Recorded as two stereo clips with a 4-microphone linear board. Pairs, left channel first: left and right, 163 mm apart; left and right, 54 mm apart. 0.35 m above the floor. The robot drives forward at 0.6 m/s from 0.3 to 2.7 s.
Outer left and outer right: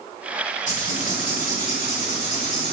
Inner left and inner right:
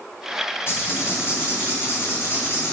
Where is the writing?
50° left (ahead or behind), 1.8 m; by 2.7 s 45° left (ahead or behind), 1.9 m.